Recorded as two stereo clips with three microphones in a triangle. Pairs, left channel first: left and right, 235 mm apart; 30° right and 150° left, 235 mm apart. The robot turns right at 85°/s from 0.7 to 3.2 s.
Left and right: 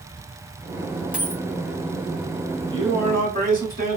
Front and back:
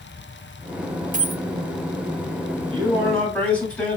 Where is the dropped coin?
175° right, 0.6 m; by 1.4 s 150° right, 0.6 m.